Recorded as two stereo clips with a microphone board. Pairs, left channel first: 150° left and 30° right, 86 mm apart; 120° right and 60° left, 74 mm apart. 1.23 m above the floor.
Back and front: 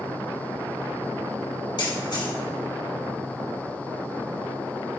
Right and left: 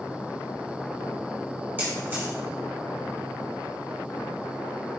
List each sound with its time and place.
1.8 s a camera shutter: 125° left, 2 m